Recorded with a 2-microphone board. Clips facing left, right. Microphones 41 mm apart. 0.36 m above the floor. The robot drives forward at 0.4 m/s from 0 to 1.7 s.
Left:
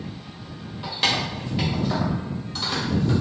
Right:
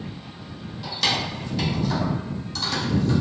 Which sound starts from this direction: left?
Keys jangling, at 0.8 s.